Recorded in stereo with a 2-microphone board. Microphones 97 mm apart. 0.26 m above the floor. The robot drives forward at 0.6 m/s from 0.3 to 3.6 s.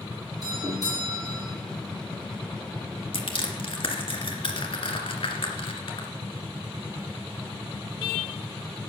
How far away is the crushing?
About 2 m.